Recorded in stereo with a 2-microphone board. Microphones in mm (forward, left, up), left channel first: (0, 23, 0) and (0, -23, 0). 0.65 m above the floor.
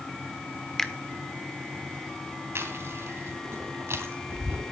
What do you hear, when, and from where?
0.8 s a finger snap: 10° left (ahead or behind), 1.3 m
2.5 s chewing: 65° right (ahead or behind), 3 m